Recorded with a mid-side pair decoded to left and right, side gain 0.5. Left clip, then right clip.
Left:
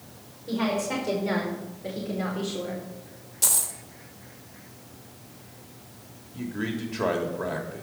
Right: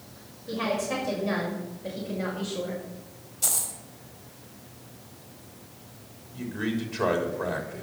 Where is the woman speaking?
45° left, 5 m.